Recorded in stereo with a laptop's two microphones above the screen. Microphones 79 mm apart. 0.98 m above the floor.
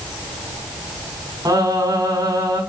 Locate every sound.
1.4 s singing: 55° right (ahead or behind), 7.5 m